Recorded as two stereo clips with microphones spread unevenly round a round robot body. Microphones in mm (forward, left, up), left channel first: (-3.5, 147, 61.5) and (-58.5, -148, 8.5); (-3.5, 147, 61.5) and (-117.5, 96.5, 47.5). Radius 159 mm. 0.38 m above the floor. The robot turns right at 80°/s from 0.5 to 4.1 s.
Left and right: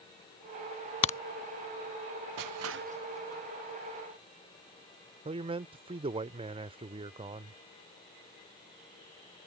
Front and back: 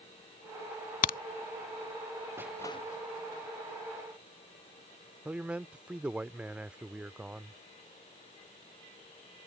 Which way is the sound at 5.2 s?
100° right.